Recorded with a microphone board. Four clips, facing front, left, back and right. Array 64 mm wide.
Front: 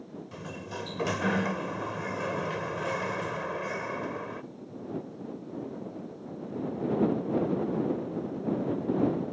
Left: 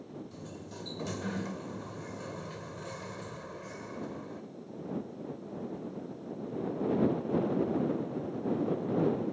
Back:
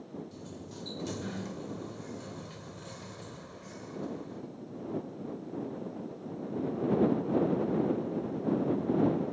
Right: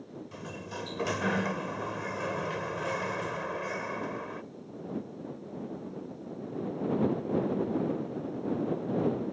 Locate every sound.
0.3 s a sliding door: 40° right